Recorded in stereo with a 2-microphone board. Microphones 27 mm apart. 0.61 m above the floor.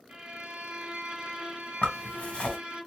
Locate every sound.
0.1 s a violin: 30° right (ahead or behind), 1.4 m
1.8 s a zipper: 65° left (ahead or behind), 1.4 m